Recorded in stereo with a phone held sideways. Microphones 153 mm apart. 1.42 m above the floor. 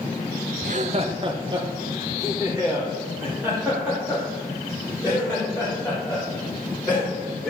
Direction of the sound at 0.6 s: 60° right (ahead or behind).